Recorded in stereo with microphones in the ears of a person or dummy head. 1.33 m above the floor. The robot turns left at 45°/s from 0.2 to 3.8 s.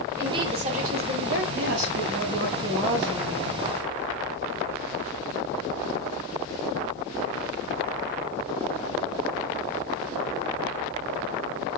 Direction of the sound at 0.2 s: 15° right.